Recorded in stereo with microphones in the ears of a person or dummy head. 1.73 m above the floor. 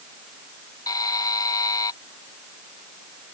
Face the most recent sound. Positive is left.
turn(degrees=20)  # may be behind; listen again after turning